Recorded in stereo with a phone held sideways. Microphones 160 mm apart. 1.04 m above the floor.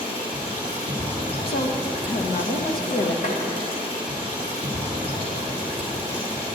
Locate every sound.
0.0 s running water: 35° left (ahead or behind), 2.5 m
1.5 s a woman speaking: 70° left (ahead or behind), 1.0 m
3.2 s tapping: 55° left (ahead or behind), 1.2 m